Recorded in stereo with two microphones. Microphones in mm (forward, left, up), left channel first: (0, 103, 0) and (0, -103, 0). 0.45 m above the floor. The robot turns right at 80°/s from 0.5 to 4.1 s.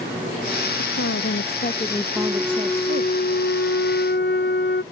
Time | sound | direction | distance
0.8 | a woman speaking | 70° left | ?
2.2 | a flute | 30° right | ?